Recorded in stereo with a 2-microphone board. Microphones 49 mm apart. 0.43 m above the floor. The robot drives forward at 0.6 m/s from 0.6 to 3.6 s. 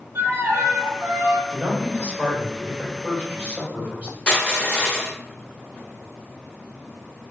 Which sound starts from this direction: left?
Crushing, at 4.3 s.